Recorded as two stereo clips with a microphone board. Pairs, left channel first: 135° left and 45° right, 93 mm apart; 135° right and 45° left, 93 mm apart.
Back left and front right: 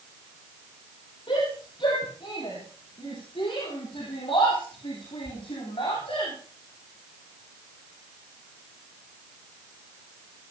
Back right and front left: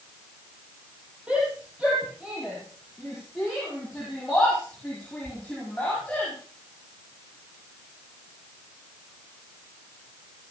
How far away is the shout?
About 8 m.